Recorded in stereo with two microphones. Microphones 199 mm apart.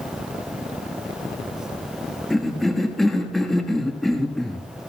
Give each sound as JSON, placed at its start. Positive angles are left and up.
{"t": 2.3, "sound": "a cough", "side_deg": 0, "distance_m": 1.2}